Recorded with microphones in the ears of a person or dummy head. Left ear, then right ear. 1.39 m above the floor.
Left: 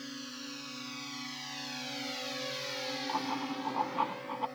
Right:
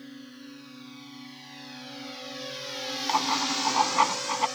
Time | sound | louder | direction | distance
0.0 | a drone | left 3 dB | 35° left (ahead or behind) | ?
3.1 | writing | right 13 dB | 70° right (ahead or behind) | ?